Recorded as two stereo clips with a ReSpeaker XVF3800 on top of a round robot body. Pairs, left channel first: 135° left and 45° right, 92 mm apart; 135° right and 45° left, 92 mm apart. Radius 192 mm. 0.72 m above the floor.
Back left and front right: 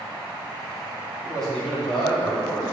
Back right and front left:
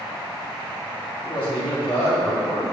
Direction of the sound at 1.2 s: 140° right.